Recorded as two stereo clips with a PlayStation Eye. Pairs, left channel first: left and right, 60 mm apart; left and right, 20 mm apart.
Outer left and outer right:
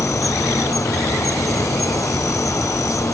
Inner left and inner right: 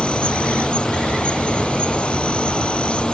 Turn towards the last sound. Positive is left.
turn(degrees=70)  # may be behind; listen again after turning